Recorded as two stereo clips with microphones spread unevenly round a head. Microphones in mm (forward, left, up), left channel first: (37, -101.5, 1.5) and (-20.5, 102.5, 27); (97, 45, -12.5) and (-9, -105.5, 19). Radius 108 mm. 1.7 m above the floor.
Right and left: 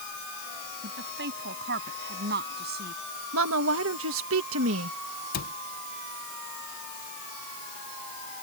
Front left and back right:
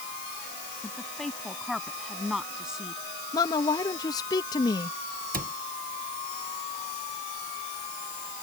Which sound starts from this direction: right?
A cupboard door, at 5.3 s.